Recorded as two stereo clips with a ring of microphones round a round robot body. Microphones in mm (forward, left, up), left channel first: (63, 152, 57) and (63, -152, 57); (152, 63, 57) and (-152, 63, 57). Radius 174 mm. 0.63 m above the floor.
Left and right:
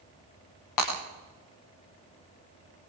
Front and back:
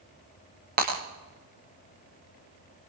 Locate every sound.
0.8 s breaking glass: 120° left, 10 m